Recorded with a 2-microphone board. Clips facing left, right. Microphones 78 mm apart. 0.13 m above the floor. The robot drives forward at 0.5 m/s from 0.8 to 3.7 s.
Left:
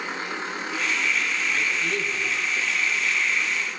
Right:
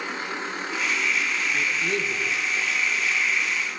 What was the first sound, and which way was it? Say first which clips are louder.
A man speaking: even; 35° right (ahead or behind).